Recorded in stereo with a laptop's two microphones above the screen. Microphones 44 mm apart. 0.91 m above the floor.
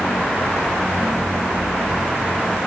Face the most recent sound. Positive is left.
No sound to turn to.